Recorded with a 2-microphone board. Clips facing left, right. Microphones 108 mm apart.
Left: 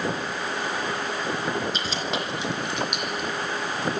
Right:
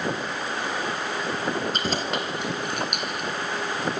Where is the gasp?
I don't hear a gasp.